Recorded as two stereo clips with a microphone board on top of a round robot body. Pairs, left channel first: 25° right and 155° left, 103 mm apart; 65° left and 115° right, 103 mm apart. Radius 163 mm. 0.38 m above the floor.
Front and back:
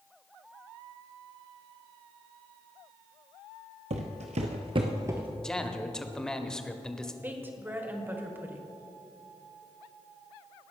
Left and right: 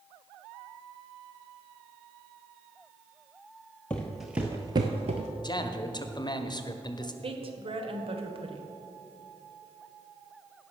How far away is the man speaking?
About 1.1 m.